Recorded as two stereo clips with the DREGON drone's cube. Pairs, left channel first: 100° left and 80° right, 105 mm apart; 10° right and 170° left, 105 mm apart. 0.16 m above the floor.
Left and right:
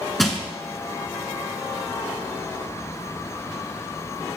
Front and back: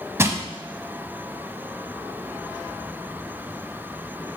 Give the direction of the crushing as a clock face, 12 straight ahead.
6 o'clock.